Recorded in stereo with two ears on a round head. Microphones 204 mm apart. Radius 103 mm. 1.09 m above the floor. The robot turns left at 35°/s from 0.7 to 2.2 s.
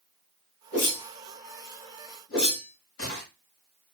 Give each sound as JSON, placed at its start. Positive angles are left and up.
{"t": 0.7, "sound": "a whoosh", "side_deg": 50, "distance_m": 2.5}